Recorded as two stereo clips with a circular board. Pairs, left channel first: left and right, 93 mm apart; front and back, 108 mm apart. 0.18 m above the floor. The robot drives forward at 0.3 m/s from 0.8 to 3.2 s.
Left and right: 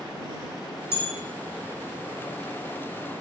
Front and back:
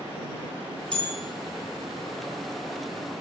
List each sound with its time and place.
0.9 s a bell: 70° left, 0.8 m; by 1.1 s 85° left, 0.8 m